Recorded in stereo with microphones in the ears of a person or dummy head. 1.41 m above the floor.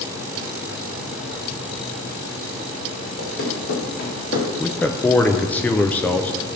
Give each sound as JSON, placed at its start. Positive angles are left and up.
{"t": 3.2, "sound": "running footsteps", "side_deg": 50, "distance_m": 4.5}
{"t": 4.6, "sound": "a man speaking", "side_deg": 10, "distance_m": 0.5}